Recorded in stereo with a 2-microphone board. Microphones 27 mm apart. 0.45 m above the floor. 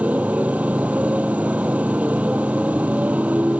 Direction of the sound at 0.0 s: 70° right (ahead or behind).